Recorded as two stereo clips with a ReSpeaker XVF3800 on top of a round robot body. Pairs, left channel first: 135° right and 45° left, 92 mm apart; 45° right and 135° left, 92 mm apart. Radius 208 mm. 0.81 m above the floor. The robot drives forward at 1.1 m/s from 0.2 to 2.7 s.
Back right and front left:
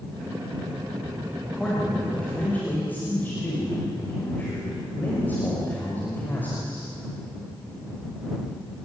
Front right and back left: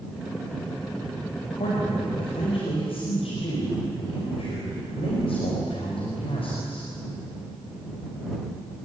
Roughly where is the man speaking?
Ahead right.